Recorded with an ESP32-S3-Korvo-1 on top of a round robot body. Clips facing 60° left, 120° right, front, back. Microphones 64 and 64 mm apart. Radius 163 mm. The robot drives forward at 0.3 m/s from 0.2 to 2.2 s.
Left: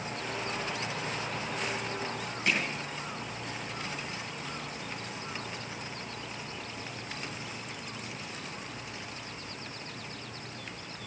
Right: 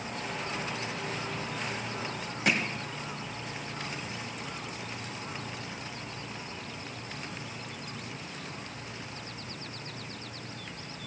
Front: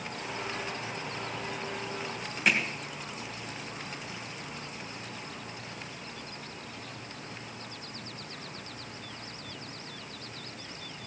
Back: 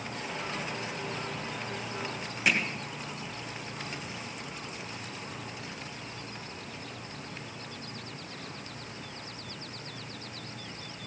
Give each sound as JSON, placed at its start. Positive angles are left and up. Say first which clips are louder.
{"t": 2.5, "sound": "hammering", "louder": "right 2 dB, front 1 dB", "azimuth_deg": -95, "distance_m": 2.0}